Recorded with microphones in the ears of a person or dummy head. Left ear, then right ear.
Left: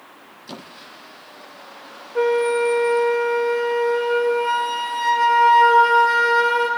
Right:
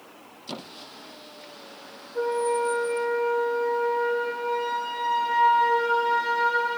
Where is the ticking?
I don't hear ticking.